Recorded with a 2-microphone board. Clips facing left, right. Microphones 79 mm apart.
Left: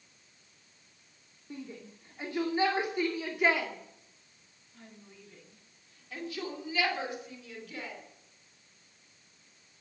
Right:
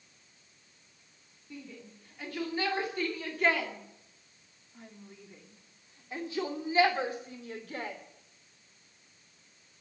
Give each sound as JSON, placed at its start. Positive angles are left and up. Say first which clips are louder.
{"t": 1.5, "sound": "a shout", "louder": "left 3 dB", "side_deg": 35, "distance_m": 2.5}